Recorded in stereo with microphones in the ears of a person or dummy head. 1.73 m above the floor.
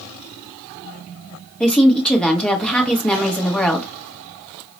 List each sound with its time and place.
1.6 s a woman speaking: 5° left (ahead or behind), 1.0 m